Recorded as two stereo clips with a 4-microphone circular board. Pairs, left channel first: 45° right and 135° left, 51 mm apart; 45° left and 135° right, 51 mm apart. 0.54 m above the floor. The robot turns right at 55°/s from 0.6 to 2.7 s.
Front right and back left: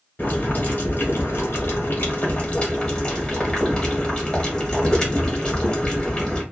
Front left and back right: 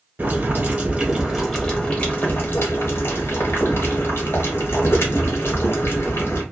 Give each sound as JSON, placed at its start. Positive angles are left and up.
{"t": 0.2, "sound": "boiling", "azimuth_deg": -95, "distance_m": 1.2}